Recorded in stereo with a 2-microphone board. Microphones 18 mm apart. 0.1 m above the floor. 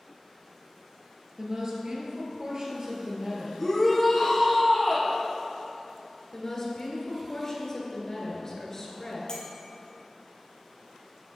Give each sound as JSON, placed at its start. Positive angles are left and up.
{"t": 1.4, "sound": "a woman speaking", "side_deg": -40, "distance_m": 2.0}
{"t": 3.6, "sound": "a shout", "side_deg": 5, "distance_m": 2.5}
{"t": 6.3, "sound": "a woman speaking", "side_deg": 30, "distance_m": 1.9}
{"t": 9.3, "sound": "a clink", "side_deg": 45, "distance_m": 1.8}